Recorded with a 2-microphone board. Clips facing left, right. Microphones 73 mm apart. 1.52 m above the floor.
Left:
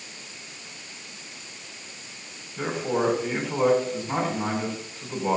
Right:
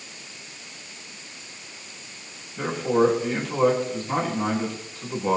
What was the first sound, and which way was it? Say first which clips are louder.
A man speaking: right 5 dB; 15° left (ahead or behind).